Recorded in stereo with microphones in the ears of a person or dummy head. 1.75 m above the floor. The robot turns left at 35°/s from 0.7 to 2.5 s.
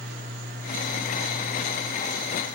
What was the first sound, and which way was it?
Only background noise.